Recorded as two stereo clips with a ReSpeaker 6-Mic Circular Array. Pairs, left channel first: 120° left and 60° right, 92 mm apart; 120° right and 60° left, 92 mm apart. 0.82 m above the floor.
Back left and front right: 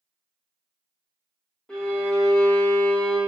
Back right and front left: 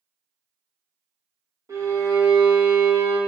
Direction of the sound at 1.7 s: 40° left.